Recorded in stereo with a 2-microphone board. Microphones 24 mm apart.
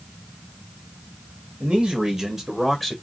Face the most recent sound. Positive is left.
turn(degrees=10)  # may be behind; listen again after turning